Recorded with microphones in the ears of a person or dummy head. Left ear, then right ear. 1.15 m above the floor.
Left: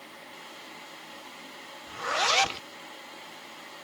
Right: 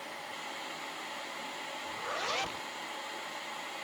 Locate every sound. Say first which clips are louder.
1.9 s a zipper: left 10 dB; 35° left (ahead or behind)